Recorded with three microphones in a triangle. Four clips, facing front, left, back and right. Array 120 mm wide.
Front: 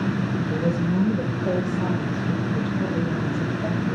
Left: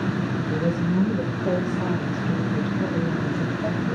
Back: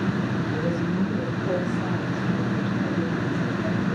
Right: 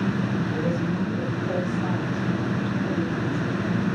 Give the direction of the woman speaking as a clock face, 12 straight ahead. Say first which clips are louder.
Left 2 dB, front 2 dB; 10 o'clock.